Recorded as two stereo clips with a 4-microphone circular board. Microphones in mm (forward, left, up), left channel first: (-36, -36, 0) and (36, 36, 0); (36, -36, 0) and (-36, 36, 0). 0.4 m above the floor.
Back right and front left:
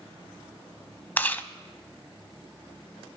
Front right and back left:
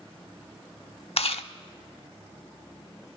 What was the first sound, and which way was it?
Chewing, 65° right.